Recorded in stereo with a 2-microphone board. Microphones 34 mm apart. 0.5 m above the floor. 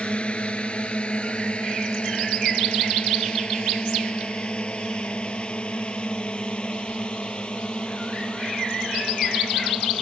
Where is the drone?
35° left (ahead or behind); by 10.0 s 30° left (ahead or behind).